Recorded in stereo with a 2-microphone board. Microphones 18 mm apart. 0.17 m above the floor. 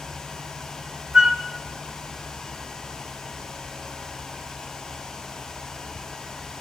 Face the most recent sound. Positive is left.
turn(degrees=-65)  # may be behind; listen again after turning